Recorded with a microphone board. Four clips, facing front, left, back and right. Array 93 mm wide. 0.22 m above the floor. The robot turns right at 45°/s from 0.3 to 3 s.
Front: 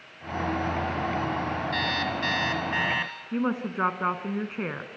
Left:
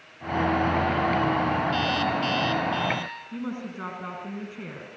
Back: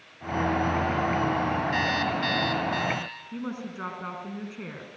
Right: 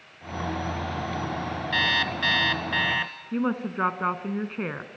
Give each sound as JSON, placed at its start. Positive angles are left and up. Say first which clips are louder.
{"t": 1.7, "sound": "an alarm clock", "louder": "left 1 dB, back 2 dB", "azimuth_deg": -105, "distance_m": 1.8}
{"t": 3.3, "sound": "a woman speaking", "louder": "right 9 dB, front 8 dB", "azimuth_deg": -50, "distance_m": 2.0}